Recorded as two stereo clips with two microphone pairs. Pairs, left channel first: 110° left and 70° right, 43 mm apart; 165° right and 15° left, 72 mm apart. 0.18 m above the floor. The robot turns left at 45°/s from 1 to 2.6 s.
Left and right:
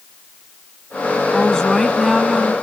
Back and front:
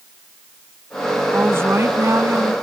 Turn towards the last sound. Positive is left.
turn(degrees=-5)